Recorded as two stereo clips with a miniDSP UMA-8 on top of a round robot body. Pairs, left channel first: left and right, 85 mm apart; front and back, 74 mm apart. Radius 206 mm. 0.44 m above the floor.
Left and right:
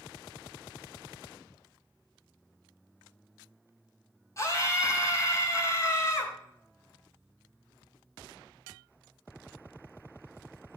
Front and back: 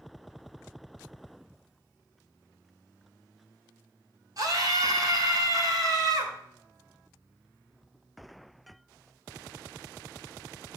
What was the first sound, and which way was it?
A scream, 145° left.